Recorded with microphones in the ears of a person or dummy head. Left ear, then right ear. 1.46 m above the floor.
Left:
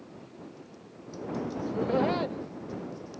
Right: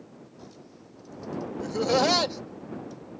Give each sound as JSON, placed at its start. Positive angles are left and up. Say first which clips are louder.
{"t": 1.6, "sound": "laughter", "louder": "right 5 dB", "side_deg": -80}